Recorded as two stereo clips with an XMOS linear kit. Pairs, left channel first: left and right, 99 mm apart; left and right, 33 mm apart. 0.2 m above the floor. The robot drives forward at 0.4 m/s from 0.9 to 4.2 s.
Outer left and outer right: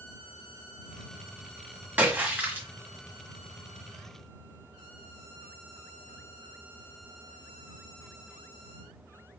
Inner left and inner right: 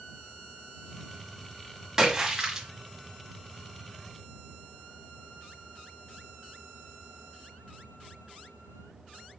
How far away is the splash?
About 1.3 m.